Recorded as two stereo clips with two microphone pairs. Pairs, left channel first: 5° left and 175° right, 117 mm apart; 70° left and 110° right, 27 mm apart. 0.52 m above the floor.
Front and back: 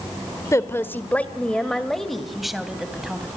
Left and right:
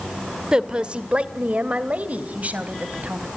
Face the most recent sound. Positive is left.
turn(degrees=-90)